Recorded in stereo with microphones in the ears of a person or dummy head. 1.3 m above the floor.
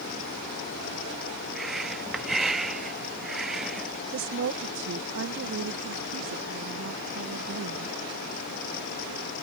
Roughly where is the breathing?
Centre.